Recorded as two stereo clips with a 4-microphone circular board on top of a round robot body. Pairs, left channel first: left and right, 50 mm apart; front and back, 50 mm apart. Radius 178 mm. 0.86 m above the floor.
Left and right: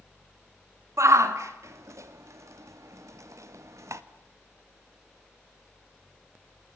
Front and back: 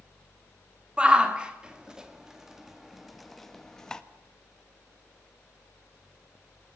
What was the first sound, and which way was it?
A shout, 110° right.